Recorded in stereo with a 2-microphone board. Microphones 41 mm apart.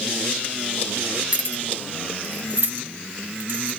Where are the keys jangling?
40° right (ahead or behind), 1.6 m; by 3.7 s 70° right (ahead or behind), 1.7 m.